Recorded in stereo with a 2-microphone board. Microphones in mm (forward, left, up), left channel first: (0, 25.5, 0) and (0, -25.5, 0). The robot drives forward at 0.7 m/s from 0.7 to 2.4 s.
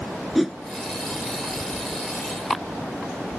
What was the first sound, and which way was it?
A whoosh, 5° right (ahead or behind).